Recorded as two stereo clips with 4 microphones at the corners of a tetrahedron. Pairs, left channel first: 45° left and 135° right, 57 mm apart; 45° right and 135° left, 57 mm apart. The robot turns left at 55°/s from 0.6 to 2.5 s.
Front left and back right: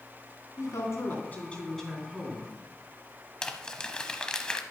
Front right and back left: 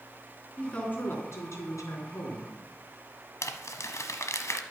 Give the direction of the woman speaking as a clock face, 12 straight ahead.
11 o'clock.